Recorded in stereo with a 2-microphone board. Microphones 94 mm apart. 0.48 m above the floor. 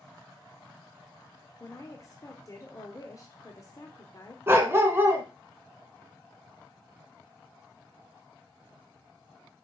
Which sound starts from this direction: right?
A dog barking, at 4.5 s.